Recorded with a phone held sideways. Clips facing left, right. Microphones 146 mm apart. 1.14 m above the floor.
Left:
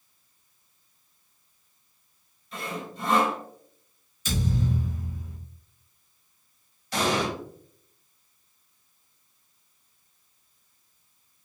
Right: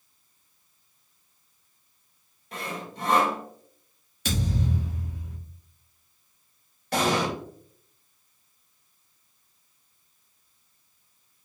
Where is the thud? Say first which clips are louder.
Left 1 dB; 70° right (ahead or behind), 1.1 m.